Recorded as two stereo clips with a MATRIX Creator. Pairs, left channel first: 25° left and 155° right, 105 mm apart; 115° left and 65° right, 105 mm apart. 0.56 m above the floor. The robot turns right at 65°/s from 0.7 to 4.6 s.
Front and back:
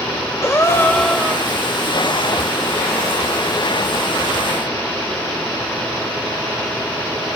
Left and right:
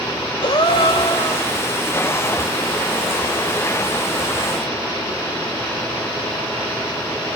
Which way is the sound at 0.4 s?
85° left.